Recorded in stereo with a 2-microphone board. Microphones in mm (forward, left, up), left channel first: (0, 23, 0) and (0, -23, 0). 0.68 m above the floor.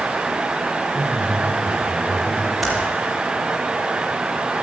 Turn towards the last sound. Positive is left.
turn(degrees=0)  # may be behind; listen again after turning